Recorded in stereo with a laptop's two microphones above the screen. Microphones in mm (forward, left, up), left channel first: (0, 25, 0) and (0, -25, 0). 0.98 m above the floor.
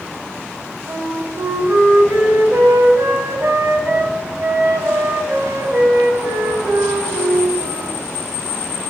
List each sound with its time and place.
0.9 s a flute: 85° right, 5 m